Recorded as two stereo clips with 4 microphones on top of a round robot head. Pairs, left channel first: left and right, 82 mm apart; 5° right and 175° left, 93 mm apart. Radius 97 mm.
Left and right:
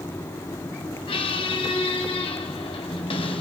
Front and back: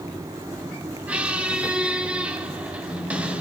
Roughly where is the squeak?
Left.